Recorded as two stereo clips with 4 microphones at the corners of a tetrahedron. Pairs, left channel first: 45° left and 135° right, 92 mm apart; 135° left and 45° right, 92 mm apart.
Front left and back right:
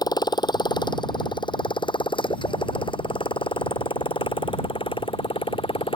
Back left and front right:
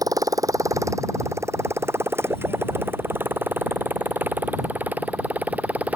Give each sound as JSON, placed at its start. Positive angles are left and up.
{"t": 0.0, "sound": "a motorcycle", "azimuth_deg": 0}